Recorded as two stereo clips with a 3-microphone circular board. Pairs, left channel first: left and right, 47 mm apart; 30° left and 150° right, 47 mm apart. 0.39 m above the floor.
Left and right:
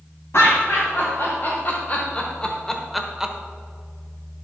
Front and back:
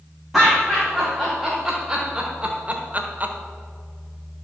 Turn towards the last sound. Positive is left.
turn(degrees=-150)